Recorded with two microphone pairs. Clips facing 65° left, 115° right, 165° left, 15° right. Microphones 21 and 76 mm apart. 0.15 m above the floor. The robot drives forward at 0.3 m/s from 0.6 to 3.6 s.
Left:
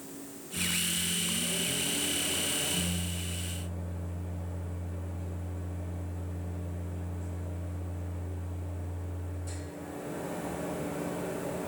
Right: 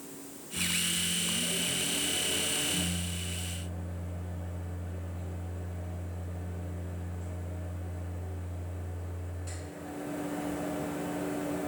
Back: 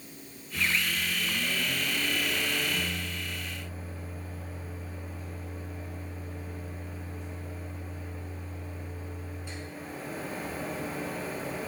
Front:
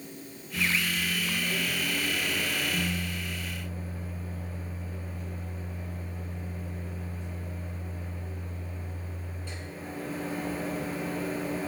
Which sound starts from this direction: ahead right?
A microwave, at 0.5 s.